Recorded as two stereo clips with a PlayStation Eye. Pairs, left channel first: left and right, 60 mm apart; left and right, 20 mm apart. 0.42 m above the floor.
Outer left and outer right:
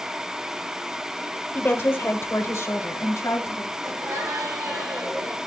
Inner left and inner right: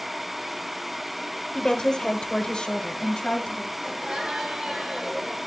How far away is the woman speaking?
About 1.1 m.